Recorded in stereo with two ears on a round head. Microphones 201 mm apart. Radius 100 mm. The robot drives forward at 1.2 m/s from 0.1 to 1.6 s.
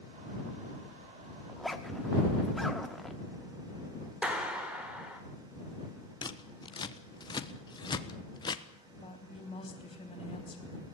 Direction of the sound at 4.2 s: 5° right (ahead or behind).